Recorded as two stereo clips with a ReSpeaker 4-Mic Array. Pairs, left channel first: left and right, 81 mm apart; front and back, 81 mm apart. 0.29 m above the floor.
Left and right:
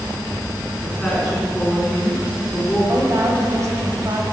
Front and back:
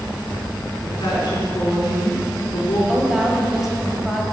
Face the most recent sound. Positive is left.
turn(degrees=-95)